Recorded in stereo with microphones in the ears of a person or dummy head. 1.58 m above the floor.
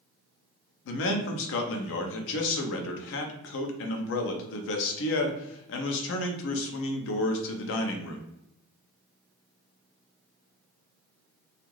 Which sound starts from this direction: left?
A man speaking, at 0.8 s.